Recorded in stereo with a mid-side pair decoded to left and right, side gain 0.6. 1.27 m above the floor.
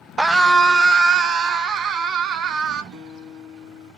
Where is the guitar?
60° right, 3.5 m.